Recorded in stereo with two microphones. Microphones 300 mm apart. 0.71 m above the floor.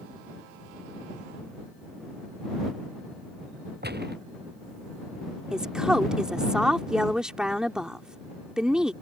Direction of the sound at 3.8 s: 30° right (ahead or behind).